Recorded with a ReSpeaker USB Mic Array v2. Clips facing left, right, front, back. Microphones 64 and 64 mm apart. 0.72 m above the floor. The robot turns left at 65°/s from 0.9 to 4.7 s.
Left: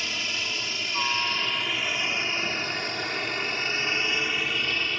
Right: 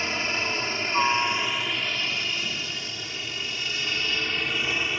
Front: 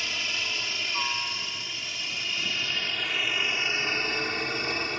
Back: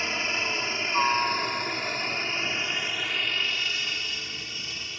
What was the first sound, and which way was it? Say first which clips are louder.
A helicopter: right 4 dB, back 4 dB; 135° right.